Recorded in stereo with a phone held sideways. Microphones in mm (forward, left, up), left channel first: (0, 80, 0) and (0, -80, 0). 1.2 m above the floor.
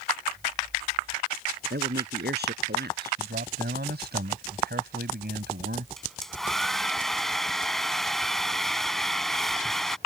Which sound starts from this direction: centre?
A hair dryer, at 6.0 s.